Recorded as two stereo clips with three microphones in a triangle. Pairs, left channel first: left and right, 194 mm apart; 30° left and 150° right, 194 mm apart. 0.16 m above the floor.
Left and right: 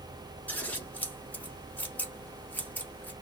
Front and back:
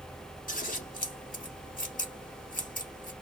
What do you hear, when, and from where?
0.5 s scissors: 15° left, 0.8 m